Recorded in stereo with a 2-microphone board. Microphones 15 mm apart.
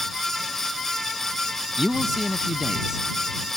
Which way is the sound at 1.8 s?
35° right (ahead or behind).